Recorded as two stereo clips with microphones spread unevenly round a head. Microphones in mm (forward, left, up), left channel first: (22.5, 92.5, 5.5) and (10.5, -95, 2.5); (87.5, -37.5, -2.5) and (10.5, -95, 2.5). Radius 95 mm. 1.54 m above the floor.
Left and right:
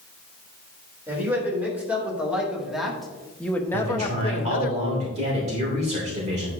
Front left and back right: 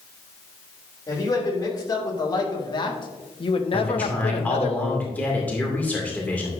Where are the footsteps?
No footsteps in this recording.